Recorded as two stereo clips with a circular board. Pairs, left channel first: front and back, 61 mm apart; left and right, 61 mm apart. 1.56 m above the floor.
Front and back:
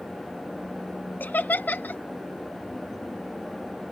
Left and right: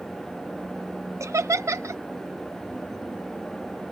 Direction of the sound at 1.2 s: 60° right.